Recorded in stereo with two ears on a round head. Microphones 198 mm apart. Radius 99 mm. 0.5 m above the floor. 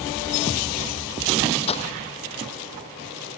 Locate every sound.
1.7 s breaking glass: 30° left (ahead or behind)